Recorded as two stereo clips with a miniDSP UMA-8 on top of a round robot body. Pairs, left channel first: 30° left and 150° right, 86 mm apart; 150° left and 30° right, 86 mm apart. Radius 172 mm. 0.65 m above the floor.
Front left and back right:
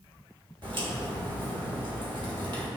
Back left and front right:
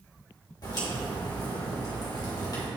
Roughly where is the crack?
Behind.